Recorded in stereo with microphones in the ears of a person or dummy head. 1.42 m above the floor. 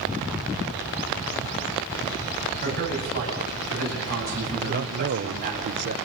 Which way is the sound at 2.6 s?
50° right (ahead or behind).